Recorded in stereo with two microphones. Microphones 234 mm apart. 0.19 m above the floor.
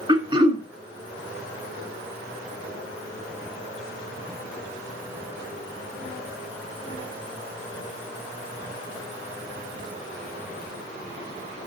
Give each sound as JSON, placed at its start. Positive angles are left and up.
{"t": 0.1, "sound": "throat clearing", "side_deg": -20, "distance_m": 2.0}